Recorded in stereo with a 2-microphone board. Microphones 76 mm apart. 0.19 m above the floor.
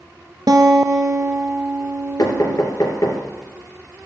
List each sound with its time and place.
0.5 s a guitar: 65° right (ahead or behind), 0.9 m
2.2 s knocking: 55° left (ahead or behind), 2.5 m